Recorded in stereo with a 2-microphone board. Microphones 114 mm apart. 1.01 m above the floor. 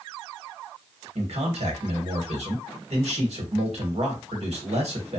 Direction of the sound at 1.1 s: 65° right (ahead or behind).